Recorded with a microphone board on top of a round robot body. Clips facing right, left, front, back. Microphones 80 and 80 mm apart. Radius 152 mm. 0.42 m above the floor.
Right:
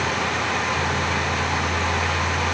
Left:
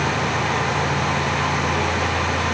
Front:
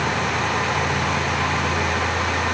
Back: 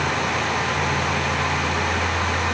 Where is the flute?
I don't hear a flute.